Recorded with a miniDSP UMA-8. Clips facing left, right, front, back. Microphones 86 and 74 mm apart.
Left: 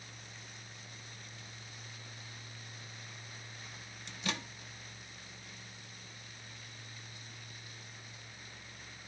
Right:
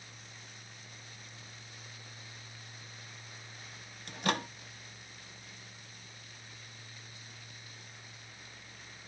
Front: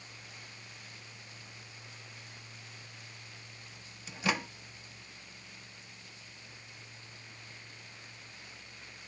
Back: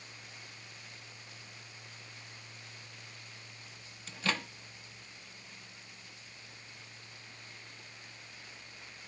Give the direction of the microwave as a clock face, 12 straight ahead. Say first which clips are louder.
Right 7 dB, front 2 dB; 2 o'clock.